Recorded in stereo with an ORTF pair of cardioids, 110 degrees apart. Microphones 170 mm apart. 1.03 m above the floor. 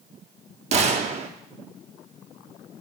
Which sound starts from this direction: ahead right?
A gunshot, at 0.7 s.